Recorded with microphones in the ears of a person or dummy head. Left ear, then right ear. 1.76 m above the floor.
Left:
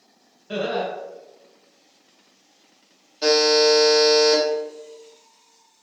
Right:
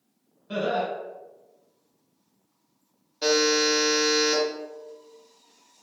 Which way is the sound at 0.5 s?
20° left (ahead or behind).